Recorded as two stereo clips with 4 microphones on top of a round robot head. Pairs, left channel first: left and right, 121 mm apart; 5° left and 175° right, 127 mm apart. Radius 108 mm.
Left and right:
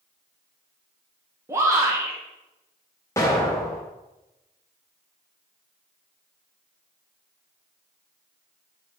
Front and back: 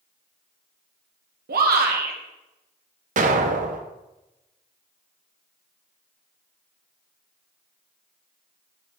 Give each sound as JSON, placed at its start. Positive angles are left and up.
{"t": 1.5, "sound": "a shout", "azimuth_deg": -165, "distance_m": 1.8}
{"t": 3.2, "sound": "an explosion", "azimuth_deg": 165, "distance_m": 0.9}